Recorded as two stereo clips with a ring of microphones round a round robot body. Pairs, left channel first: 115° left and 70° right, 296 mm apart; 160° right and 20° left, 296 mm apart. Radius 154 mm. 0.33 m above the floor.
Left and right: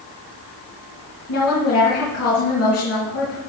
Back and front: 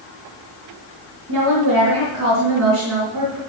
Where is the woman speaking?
70° left, 3.5 m.